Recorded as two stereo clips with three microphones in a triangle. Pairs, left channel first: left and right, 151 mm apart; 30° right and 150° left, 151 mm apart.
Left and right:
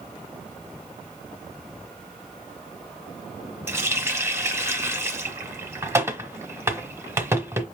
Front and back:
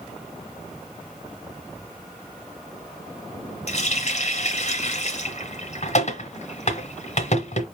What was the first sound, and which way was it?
A running tap, 20° right.